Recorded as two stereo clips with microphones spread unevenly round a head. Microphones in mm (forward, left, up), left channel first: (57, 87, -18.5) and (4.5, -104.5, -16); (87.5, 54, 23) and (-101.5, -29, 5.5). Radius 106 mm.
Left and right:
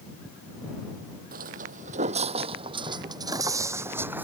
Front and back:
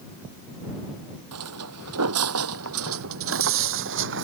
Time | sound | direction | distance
1.3 | footsteps | 150° right | ?